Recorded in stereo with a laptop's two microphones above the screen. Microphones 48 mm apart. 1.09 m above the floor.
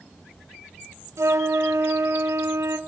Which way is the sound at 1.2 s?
85° right.